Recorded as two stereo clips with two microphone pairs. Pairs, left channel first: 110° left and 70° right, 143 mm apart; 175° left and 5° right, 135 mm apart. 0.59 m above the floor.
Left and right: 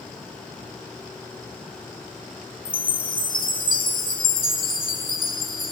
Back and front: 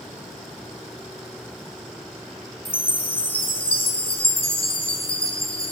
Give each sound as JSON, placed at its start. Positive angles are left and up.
{"t": 2.6, "sound": "a chime", "azimuth_deg": 125, "distance_m": 2.5}